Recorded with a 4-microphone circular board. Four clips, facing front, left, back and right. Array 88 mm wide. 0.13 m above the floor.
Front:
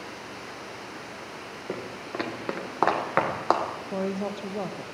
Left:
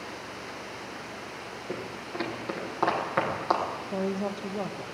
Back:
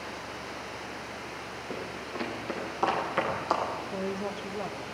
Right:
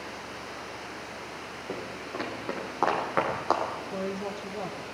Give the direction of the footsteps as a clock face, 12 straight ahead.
1 o'clock.